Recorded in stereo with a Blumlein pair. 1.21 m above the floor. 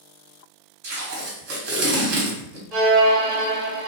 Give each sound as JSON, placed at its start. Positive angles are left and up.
{"t": 0.8, "sound": "tape being pulled", "azimuth_deg": -50, "distance_m": 1.1}
{"t": 2.7, "sound": "a violin", "azimuth_deg": -35, "distance_m": 1.2}